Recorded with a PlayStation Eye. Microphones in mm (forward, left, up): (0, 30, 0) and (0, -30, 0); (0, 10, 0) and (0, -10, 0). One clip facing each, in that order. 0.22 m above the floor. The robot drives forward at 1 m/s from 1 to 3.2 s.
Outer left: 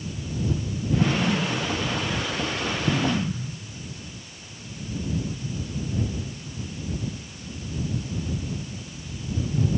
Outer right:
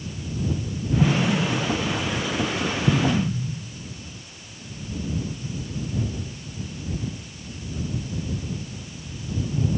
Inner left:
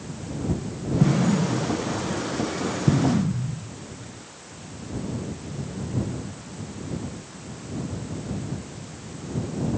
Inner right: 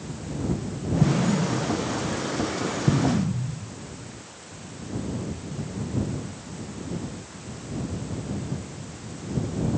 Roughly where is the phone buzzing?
No phone buzzing in this recording.